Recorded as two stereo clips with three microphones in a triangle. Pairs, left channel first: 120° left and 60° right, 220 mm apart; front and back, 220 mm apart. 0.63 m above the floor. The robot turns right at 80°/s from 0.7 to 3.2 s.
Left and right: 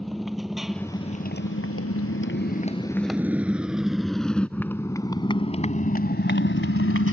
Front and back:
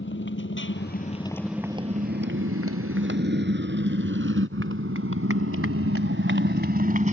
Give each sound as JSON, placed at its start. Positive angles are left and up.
{"t": 0.0, "sound": "a motorcycle", "azimuth_deg": 30}